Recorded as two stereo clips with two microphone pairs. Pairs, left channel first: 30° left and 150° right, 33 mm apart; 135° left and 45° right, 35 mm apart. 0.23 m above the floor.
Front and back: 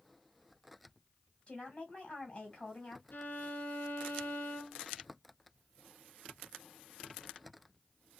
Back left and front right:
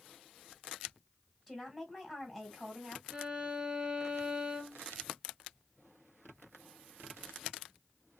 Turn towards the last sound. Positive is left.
turn(degrees=15)